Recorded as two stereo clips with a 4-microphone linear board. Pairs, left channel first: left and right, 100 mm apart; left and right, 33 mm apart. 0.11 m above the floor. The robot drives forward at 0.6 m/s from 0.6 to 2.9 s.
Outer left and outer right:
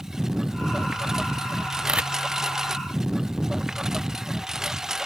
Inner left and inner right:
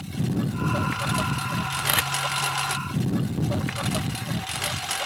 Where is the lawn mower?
5° right (ahead or behind).